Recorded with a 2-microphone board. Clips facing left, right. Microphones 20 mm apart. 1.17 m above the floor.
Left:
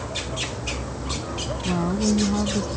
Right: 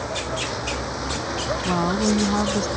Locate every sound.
0.0 s a vehicle: 60° right (ahead or behind); by 2.8 s 70° right (ahead or behind)
1.6 s a woman speaking: 60° right (ahead or behind)